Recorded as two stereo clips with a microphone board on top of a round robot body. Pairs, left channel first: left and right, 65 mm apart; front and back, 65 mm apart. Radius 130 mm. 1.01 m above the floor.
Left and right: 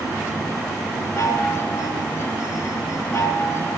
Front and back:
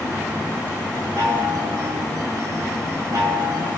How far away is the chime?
About 5.5 m.